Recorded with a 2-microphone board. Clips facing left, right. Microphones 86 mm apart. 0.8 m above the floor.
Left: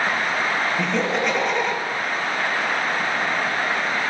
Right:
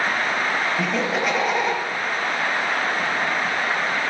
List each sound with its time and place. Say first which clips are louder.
0.8 s laughter: left 1 dB; 5° right (ahead or behind), 0.6 m